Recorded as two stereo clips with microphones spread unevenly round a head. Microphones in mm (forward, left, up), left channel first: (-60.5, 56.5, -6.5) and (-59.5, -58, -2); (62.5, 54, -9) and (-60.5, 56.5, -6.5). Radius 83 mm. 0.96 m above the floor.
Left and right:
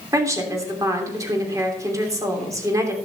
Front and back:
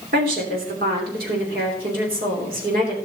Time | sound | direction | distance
0.1 | a woman speaking | 150° right | 3 m